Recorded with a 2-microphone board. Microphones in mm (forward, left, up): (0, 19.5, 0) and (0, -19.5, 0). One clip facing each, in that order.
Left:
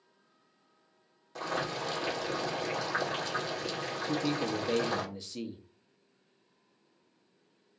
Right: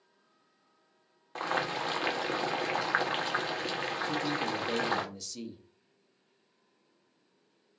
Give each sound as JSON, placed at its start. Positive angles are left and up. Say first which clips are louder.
{"t": 1.4, "sound": "boiling", "louder": "right 2 dB", "side_deg": -40, "distance_m": 1.0}
{"t": 4.0, "sound": "a man speaking", "louder": "left 3 dB", "side_deg": 25, "distance_m": 0.9}